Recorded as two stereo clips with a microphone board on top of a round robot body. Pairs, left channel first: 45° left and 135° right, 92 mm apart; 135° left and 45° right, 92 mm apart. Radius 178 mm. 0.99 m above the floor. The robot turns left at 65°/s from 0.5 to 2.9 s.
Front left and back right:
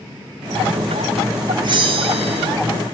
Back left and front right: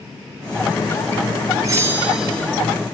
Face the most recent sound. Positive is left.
turn(degrees=180)